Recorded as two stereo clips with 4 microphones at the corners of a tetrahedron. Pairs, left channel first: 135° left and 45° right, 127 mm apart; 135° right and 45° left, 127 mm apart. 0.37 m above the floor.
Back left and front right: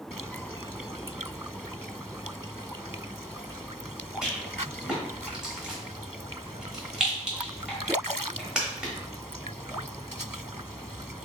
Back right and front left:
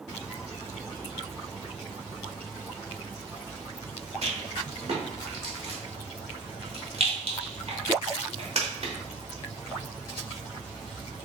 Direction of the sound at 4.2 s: 40° left.